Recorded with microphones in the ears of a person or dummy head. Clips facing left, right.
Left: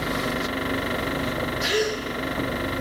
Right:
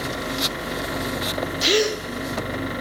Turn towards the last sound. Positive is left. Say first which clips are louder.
# right 5 dB
turn(degrees=-40)  # may be behind; listen again after turning